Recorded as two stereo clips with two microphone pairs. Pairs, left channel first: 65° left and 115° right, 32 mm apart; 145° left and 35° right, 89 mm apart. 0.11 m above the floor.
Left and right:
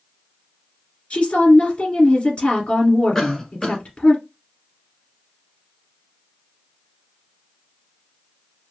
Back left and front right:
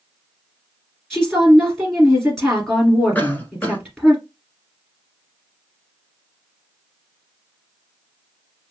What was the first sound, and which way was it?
A woman speaking, 55° left.